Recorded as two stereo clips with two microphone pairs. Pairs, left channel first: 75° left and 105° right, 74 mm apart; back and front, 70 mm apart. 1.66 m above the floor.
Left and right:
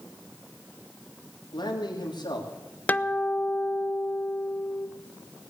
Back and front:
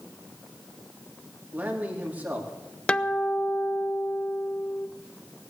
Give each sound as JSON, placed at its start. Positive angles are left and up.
{"t": 1.5, "sound": "a man speaking", "azimuth_deg": 70, "distance_m": 3.5}
{"t": 2.9, "sound": "a guitar", "azimuth_deg": 115, "distance_m": 0.6}